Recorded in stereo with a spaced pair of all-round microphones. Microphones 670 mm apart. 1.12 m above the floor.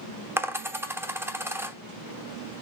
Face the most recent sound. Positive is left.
turn(degrees=-5)  # may be behind; listen again after turning